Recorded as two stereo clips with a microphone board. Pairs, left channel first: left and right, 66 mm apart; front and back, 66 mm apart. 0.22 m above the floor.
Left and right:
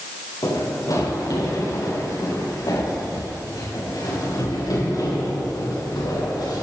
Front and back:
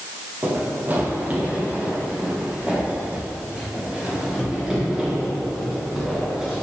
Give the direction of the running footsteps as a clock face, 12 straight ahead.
8 o'clock.